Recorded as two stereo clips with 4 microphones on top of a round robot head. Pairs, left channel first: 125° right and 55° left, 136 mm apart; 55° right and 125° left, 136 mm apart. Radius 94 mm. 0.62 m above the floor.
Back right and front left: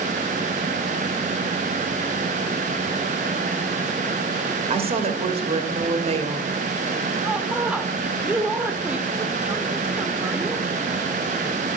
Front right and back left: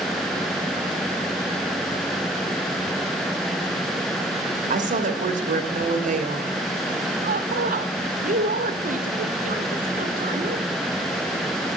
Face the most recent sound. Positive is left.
turn(degrees=135)